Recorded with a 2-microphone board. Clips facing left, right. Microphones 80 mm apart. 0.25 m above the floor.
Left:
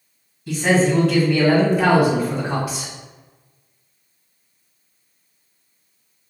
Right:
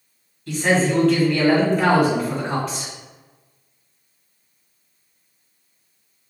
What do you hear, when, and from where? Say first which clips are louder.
0.5 s a man speaking: left 2 dB; 5° left (ahead or behind), 1.5 m